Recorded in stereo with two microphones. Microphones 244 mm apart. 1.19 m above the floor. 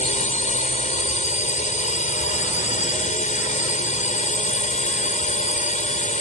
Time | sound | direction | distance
0.0 | a drone | 30° left (ahead or behind) | ?